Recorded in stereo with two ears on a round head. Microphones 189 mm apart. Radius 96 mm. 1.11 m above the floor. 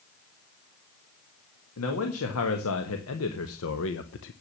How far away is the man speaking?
About 2.0 m.